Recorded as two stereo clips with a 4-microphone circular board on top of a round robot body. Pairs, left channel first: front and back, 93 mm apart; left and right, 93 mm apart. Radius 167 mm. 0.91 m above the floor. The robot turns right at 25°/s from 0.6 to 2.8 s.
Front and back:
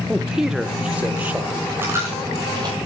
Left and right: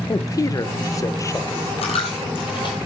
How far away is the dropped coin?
About 1.3 m.